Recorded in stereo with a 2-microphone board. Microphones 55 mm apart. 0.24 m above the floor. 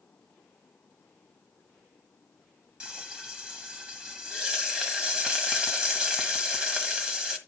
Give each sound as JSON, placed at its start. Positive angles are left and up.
{"t": 2.8, "sound": "frying", "side_deg": -15, "distance_m": 1.7}